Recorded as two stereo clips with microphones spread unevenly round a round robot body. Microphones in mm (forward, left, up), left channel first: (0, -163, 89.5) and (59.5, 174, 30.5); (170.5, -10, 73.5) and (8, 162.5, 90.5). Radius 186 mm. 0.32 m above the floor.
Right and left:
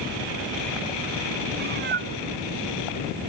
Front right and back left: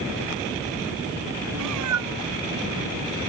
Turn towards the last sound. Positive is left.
turn(degrees=145)